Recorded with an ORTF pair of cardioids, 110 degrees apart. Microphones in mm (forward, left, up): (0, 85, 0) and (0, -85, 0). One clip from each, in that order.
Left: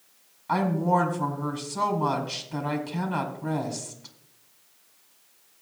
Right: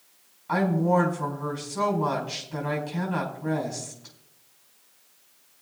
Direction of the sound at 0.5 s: 20° left.